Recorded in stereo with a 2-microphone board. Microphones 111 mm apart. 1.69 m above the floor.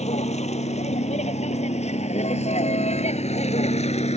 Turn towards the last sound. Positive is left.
turn(degrees=75)  # may be behind; listen again after turning